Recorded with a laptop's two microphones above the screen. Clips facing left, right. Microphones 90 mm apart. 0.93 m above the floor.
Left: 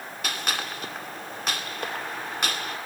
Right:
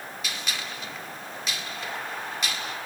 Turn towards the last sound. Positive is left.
turn(degrees=55)  # may be behind; listen again after turning